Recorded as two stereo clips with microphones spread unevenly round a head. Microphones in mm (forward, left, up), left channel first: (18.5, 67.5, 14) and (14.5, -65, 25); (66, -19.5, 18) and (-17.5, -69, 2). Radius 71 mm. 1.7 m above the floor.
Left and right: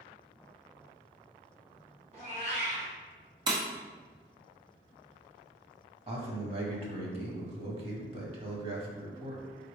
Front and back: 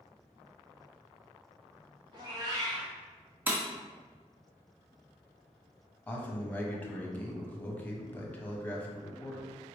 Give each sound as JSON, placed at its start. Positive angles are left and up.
{"t": 2.1, "sound": "a cat meowing", "azimuth_deg": -115, "distance_m": 1.5}
{"t": 3.5, "sound": "breaking glass", "azimuth_deg": -80, "distance_m": 1.0}
{"t": 6.1, "sound": "a man speaking", "azimuth_deg": -45, "distance_m": 1.3}